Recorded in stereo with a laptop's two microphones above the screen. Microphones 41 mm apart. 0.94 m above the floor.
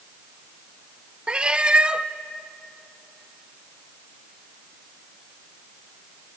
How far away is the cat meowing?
About 0.6 m.